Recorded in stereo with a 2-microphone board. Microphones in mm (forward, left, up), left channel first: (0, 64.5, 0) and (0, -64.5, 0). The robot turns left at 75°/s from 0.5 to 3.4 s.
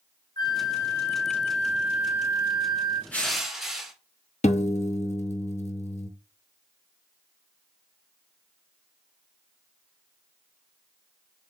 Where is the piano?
60° left (ahead or behind), 0.7 m.